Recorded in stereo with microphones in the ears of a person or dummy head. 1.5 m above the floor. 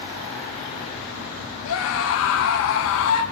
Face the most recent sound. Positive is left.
turn(degrees=80)